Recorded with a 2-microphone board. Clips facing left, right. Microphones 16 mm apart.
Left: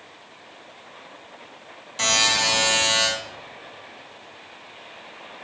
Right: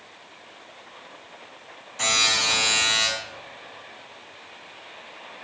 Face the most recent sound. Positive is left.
turn(degrees=50)  # may be behind; listen again after turning